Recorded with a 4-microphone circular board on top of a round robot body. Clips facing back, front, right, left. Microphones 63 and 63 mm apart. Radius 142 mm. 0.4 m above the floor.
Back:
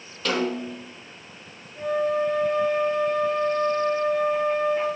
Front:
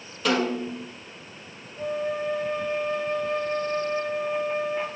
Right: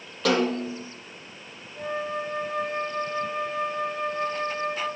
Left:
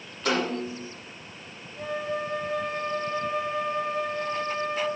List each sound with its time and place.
0.2 s a snare drum: 85° right, 5.5 m
1.8 s a flute: 155° right, 9 m